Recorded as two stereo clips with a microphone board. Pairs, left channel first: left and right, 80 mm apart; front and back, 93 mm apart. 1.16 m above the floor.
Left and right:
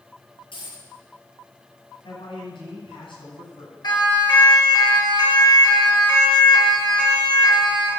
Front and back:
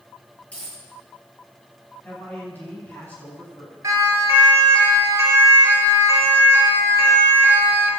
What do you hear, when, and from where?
0.5 s a dropped coin: 75° left, 9.5 m
2.0 s a man speaking: 70° left, 9 m
3.8 s a siren: 125° left, 6.5 m; by 7.9 s 115° left, 4.5 m